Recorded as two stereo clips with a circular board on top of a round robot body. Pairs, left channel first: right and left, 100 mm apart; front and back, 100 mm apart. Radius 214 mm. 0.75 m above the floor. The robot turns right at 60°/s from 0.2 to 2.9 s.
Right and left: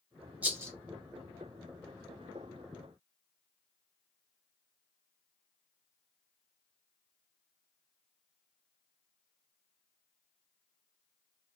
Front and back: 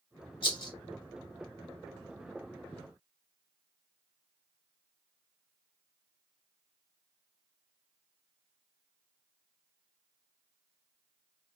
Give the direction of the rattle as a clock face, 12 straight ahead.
11 o'clock.